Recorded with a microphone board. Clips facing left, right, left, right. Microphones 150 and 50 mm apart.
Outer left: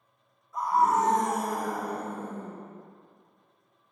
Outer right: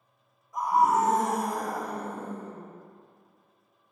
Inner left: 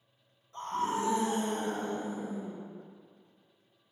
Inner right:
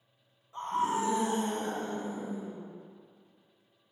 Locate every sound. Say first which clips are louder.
0.5 s a scream: outer right 1 dB, inner right 2 dB; 15° right (ahead or behind), 1.3 m; by 2.6 s 15° left (ahead or behind), 2 m